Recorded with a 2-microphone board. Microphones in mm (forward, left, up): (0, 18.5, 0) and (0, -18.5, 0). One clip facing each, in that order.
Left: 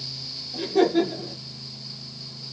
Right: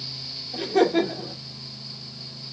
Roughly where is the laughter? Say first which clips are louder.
Even; right.